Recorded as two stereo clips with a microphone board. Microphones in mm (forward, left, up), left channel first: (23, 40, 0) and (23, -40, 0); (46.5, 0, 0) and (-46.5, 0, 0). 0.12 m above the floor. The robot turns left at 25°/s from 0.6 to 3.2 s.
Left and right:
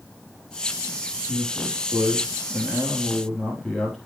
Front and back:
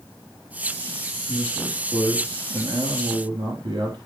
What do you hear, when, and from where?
1.3 s a man speaking: 135° right, 3 m; by 4.0 s straight behind, 3 m